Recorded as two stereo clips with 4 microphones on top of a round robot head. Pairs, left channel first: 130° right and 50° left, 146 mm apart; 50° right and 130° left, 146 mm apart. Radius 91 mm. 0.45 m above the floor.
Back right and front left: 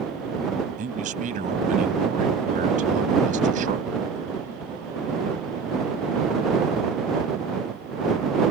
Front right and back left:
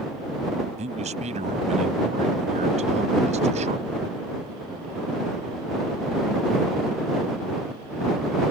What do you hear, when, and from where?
0.8 s a man speaking: 85° left